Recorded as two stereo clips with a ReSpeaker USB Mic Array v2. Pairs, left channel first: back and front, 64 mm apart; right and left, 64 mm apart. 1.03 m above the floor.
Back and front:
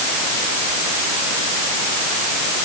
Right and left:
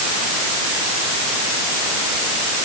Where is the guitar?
I don't hear a guitar.